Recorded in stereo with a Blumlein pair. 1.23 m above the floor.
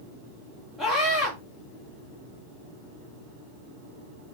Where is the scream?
10° left, 1.5 m.